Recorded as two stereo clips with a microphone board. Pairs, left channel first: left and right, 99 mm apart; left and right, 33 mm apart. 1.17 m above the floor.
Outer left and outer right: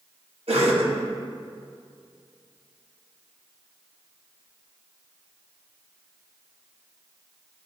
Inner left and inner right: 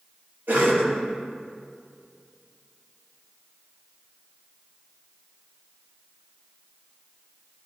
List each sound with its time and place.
0.5 s a cough: 80° right, 1.7 m